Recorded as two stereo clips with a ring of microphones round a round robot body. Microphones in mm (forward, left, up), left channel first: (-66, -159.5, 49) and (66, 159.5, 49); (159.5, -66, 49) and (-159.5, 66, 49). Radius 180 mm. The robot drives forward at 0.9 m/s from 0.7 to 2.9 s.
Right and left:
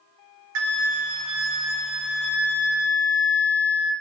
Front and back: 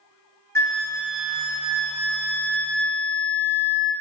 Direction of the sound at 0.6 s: 60° left.